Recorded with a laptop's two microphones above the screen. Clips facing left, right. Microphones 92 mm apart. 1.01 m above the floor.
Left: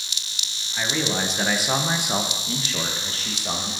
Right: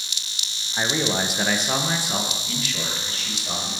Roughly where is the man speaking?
Right.